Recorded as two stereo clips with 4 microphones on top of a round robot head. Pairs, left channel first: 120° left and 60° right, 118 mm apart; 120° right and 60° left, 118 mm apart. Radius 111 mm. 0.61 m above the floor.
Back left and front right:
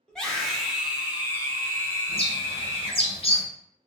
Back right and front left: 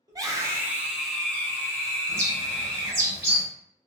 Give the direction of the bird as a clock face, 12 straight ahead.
8 o'clock.